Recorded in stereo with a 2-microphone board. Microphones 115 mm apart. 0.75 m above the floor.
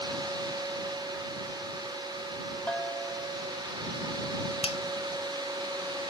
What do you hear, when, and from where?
2.7 s a bell: 10° left (ahead or behind)
4.6 s a finger snap: 70° left (ahead or behind)